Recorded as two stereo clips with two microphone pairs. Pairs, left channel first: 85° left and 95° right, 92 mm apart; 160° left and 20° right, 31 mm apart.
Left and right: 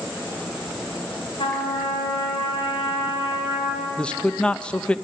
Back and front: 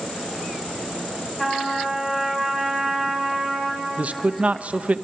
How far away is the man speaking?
About 0.7 m.